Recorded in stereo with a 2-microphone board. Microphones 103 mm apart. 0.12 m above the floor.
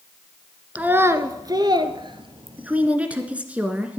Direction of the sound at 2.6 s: 15° right (ahead or behind).